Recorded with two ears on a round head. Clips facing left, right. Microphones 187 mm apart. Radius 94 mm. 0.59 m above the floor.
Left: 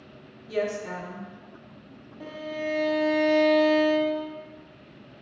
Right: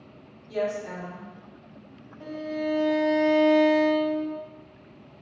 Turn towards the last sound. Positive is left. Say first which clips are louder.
# right 3 dB
turn(degrees=55)  # may be behind; listen again after turning